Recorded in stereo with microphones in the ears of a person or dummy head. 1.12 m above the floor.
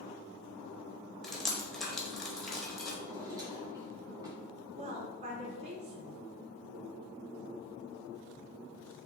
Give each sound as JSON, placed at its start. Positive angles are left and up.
{"t": 1.2, "sound": "dripping", "side_deg": 0, "distance_m": 0.7}
{"t": 3.0, "sound": "a drawer", "side_deg": -15, "distance_m": 1.2}
{"t": 4.8, "sound": "a woman speaking", "side_deg": -30, "distance_m": 0.8}